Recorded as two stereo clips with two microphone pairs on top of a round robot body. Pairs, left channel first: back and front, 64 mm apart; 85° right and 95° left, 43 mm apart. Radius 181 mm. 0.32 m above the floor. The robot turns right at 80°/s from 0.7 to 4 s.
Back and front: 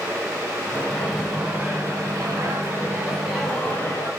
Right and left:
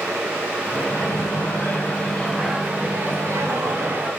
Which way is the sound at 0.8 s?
115° right.